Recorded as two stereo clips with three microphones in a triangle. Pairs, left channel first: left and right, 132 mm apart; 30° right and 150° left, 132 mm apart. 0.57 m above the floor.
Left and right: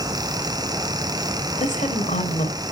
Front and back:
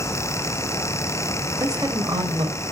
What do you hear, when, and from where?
1.6 s a woman speaking: 85° left, 3.5 m; by 2.6 s 100° left, 3.5 m